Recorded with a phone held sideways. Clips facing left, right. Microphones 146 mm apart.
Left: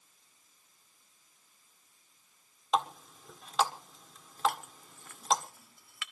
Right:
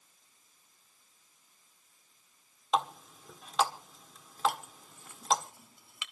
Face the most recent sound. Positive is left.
turn(degrees=-20)  # may be behind; listen again after turning